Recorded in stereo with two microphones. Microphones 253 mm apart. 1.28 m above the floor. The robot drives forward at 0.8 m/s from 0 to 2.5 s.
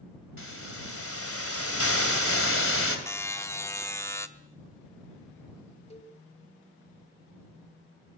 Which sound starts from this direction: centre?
A buzzer, at 3.1 s.